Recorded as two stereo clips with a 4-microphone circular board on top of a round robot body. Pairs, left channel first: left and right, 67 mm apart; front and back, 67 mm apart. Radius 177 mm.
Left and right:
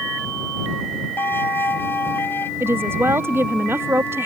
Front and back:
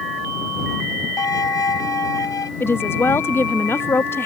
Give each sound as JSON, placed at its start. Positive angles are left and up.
{"t": 1.2, "sound": "a violin", "azimuth_deg": 30}
{"t": 2.6, "sound": "a woman speaking", "azimuth_deg": -45}